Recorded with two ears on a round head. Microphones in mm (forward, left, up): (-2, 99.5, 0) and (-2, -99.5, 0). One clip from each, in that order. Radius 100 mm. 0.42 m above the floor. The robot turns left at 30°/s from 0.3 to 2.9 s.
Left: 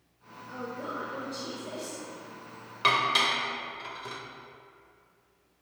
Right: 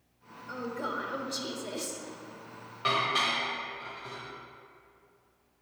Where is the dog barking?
No dog barking in this recording.